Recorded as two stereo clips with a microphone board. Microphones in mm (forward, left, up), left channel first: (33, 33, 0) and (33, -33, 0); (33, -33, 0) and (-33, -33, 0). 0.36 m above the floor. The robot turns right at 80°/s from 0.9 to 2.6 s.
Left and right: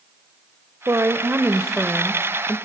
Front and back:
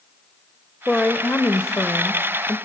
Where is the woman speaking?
80° right, 1.1 m; by 2.6 s 55° left, 1.1 m.